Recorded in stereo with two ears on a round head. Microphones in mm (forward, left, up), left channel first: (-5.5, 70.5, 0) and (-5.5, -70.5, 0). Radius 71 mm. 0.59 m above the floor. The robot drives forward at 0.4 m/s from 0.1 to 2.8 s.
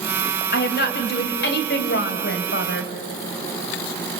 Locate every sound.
0.5 s a woman speaking: 65° left (ahead or behind), 3 m; by 2.9 s 75° left (ahead or behind), 3 m